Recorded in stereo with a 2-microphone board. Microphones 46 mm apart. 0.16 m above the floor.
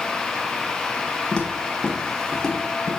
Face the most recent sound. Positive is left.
turn(degrees=10)  # may be behind; listen again after turning